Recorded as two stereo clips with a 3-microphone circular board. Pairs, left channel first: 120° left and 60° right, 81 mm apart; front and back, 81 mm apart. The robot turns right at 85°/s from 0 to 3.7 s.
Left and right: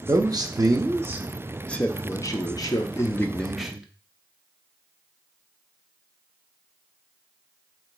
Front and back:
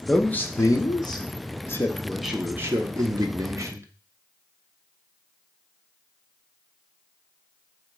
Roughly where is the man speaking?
Right.